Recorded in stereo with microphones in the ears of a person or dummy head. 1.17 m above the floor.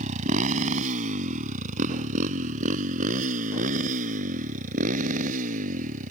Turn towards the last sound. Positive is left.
turn(degrees=-45)  # may be behind; listen again after turning